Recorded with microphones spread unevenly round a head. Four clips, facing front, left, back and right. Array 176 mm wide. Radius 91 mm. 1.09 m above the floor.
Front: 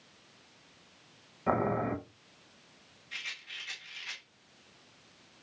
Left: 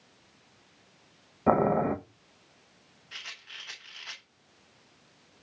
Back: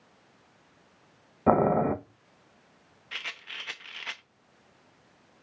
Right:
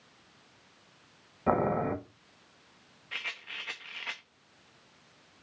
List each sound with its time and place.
1.5 s boiling: 150° left, 0.9 m
3.1 s a rattle: 125° right, 0.8 m